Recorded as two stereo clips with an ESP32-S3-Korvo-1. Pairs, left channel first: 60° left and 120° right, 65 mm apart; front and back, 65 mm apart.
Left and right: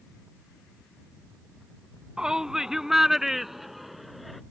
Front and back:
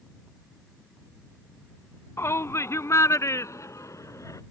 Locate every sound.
2.2 s a shout: 45° right; by 4.4 s 30° right